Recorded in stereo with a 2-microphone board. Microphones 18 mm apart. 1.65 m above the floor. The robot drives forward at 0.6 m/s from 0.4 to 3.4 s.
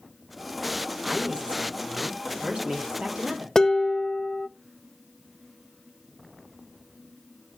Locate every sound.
1.0 s a woman speaking: 55° right (ahead or behind), 4 m; by 3.5 s 75° right (ahead or behind), 3 m
3.5 s dishes clattering: 30° left (ahead or behind), 0.6 m